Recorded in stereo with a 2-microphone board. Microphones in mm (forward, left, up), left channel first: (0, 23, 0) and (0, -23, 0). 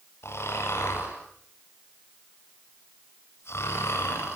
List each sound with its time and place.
0.2 s snoring: 65° left (ahead or behind), 10 m